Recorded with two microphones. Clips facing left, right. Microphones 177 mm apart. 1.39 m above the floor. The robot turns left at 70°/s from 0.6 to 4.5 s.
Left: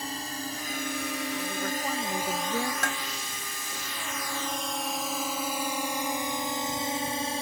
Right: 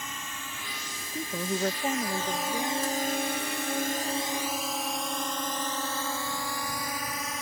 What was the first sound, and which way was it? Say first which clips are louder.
A drone: left 6 dB; 35° left (ahead or behind).